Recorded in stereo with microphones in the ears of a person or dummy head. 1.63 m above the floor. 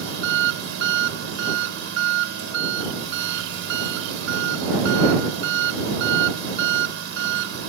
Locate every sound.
0.0 s an engine running: 70° right (ahead or behind)